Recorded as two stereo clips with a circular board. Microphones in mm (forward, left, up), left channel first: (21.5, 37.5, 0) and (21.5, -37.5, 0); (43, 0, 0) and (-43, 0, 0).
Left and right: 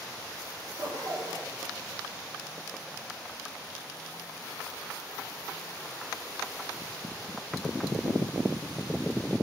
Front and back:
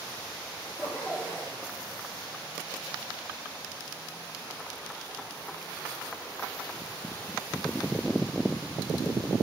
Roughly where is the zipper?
Ahead right.